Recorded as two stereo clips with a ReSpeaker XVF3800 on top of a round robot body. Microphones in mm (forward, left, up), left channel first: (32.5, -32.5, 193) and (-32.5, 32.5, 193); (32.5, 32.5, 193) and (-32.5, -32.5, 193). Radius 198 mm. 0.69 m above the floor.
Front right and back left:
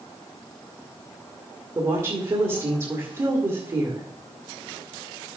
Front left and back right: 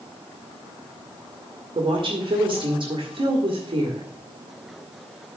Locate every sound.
1.8 s a woman speaking: 170° right, 1.8 m